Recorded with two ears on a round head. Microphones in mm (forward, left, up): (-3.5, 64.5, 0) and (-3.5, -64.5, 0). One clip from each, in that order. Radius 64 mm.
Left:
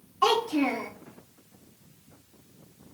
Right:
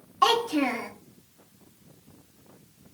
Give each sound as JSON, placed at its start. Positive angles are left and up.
{"t": 0.2, "sound": "a child speaking", "side_deg": -35, "distance_m": 0.8}